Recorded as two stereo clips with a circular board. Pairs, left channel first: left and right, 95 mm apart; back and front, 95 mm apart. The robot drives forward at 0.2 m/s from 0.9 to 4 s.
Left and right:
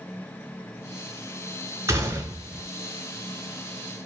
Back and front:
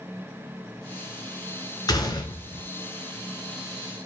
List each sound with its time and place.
1.9 s a gunshot: 145° right, 0.5 m; by 2.7 s 155° right, 0.6 m